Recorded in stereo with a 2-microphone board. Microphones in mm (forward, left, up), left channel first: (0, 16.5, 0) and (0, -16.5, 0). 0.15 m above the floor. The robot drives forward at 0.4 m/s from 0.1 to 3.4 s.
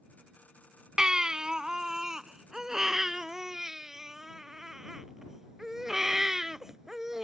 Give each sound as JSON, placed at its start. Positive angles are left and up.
{"t": 1.0, "sound": "a baby crying", "side_deg": -20}